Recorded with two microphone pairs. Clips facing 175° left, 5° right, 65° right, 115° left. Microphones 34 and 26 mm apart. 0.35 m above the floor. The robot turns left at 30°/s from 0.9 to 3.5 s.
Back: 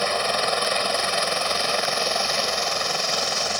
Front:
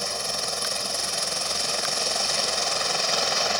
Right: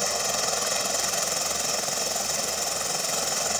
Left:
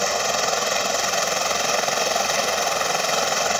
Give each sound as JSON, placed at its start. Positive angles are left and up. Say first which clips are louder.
{"t": 0.0, "sound": "a helicopter", "louder": "back 8 dB, left 5 dB", "azimuth_deg": 155}